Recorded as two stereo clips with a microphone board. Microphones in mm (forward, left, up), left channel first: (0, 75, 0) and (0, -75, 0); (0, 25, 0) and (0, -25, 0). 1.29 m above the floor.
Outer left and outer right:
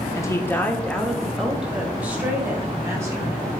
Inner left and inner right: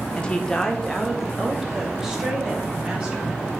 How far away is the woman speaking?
About 1.5 m.